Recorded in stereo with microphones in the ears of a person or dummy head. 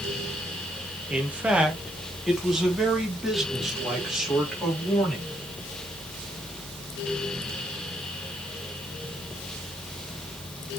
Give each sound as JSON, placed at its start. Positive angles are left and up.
{"t": 1.1, "sound": "a man speaking", "side_deg": -5, "distance_m": 1.4}